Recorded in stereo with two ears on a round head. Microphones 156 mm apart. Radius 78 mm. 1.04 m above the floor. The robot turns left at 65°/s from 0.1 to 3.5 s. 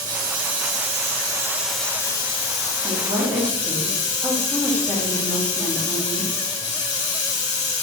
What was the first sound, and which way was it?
Running water, 75° right.